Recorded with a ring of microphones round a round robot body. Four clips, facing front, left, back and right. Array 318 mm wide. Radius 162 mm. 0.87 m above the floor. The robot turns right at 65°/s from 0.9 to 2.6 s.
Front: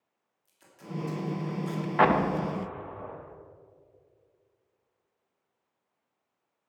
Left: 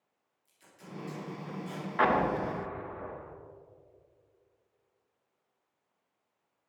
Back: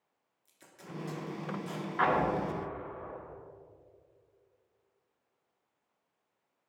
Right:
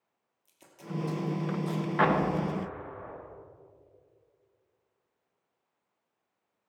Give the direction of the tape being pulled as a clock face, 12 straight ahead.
4 o'clock.